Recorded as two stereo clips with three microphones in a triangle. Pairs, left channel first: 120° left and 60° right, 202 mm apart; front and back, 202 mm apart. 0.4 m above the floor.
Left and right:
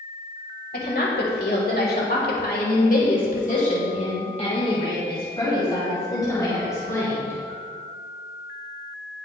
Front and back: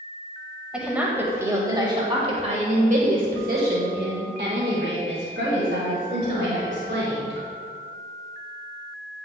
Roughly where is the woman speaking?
Left.